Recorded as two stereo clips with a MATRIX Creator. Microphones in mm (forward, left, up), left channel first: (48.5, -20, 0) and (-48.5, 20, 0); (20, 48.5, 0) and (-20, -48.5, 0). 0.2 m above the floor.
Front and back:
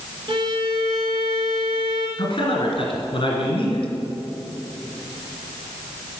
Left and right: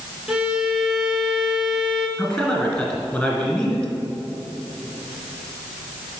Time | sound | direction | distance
0.3 | a violin | 165° left | 1.1 m
2.2 | a man speaking | 10° right | 2 m